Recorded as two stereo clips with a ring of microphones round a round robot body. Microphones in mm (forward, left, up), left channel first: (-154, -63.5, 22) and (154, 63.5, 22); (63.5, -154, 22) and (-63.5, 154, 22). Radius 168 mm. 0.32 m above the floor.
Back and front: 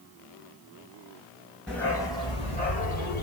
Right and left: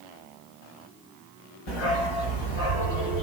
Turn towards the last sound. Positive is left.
turn(degrees=-95)